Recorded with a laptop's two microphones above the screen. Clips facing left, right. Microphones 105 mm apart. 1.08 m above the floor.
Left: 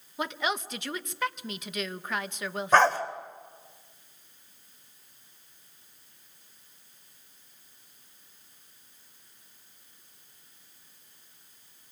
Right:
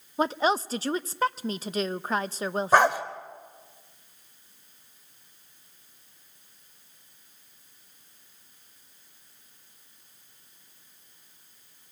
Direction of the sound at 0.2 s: 35° right (ahead or behind).